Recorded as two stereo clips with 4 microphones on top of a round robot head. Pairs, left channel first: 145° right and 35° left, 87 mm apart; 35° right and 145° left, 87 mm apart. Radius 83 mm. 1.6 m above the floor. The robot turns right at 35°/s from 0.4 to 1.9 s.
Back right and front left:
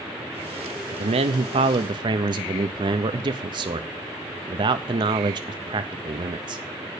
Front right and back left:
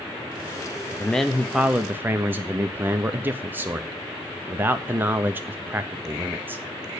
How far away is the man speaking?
About 0.6 m.